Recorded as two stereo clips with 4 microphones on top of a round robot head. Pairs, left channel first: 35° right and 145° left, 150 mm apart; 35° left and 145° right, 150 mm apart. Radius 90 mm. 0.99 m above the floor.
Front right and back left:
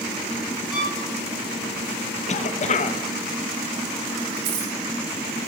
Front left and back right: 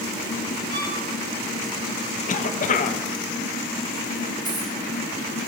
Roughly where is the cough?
Ahead.